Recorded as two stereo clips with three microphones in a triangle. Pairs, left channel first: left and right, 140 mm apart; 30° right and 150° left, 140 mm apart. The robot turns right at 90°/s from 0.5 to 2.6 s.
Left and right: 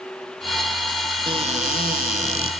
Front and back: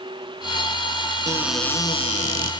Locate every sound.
1.3 s a cupboard door: 145° right, 1.0 m; by 2.5 s 35° right, 1.0 m